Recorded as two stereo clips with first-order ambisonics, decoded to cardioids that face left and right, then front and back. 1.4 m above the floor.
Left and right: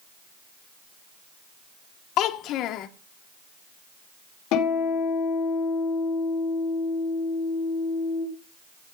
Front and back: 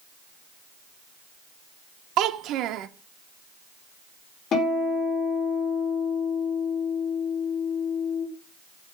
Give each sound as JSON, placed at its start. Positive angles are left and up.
{"t": 2.2, "sound": "a child speaking", "azimuth_deg": 135, "distance_m": 1.0}
{"t": 4.5, "sound": "a guitar", "azimuth_deg": 60, "distance_m": 4.5}